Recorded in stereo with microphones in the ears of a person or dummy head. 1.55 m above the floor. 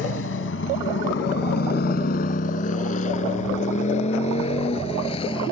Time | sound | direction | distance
0.0 | a motorcycle | 80° left | ?